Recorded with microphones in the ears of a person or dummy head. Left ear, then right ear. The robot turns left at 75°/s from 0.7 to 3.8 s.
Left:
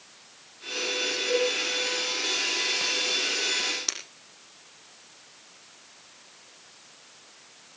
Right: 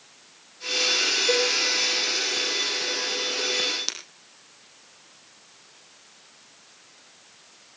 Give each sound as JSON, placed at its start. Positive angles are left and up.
{"t": 1.3, "sound": "a cowbell", "side_deg": 20, "distance_m": 4.5}
{"t": 3.9, "sound": "breaking glass", "side_deg": -50, "distance_m": 6.0}